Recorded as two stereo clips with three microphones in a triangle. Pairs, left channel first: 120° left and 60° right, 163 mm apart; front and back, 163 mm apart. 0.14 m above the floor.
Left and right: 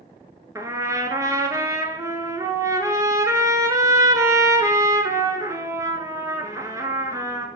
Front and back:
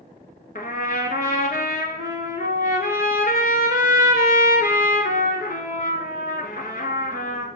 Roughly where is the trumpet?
Ahead.